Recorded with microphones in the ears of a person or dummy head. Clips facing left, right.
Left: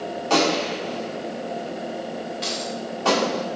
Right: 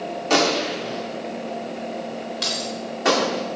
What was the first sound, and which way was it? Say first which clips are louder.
A gunshot: even; 20° right (ahead or behind).